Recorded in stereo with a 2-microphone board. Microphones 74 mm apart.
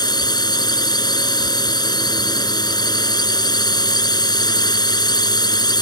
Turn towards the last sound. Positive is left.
turn(degrees=70)  # may be behind; listen again after turning